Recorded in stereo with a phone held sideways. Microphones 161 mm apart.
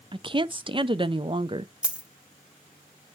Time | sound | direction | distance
0.1 | a woman speaking | 35° right (ahead or behind) | 0.5 m
1.8 | a dropped coin | 5° right (ahead or behind) | 0.8 m